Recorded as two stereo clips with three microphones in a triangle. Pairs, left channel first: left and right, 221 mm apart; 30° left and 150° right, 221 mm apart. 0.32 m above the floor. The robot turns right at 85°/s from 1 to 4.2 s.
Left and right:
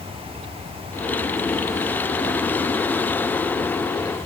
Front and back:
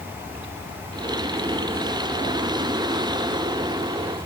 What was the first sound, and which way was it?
Only background noise.